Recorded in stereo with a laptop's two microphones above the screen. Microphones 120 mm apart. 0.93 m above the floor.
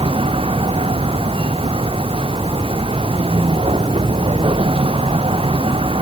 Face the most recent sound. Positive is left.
turn(degrees=-50)  # may be behind; listen again after turning